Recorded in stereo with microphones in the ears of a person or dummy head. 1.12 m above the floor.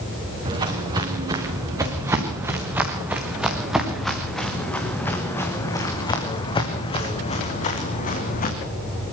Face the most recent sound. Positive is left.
turn(degrees=45)  # may be behind; listen again after turning